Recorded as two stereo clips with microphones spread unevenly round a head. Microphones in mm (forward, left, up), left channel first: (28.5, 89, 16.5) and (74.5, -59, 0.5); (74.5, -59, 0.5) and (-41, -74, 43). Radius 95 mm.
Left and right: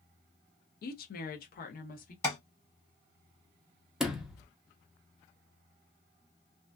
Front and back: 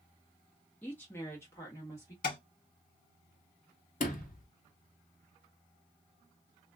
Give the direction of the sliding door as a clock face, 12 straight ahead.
11 o'clock.